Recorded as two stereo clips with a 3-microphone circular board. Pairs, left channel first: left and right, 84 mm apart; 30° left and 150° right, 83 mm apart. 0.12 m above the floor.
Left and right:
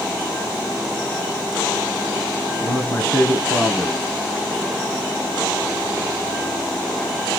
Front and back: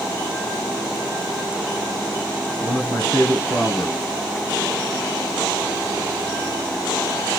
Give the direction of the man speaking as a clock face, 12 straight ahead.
10 o'clock.